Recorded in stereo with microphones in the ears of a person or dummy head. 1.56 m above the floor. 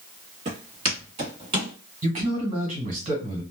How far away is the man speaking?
About 1.3 m.